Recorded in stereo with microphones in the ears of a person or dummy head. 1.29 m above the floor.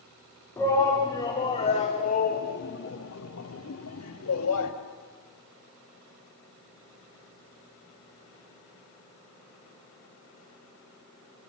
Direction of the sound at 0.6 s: 15° left (ahead or behind).